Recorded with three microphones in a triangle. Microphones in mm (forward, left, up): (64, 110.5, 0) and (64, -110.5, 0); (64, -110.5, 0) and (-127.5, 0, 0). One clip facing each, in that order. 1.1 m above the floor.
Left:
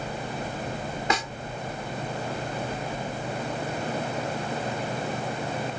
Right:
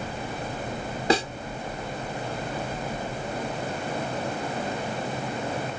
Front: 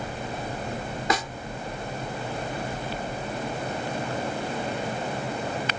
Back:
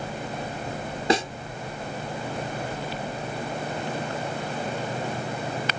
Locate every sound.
1.1 s a snare drum: 145° right